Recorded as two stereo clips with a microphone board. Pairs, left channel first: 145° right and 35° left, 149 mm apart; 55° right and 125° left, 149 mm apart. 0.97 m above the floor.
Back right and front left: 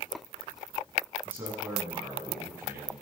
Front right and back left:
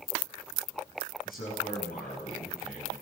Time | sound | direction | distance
1.2 | a man speaking | 45° right | 7 m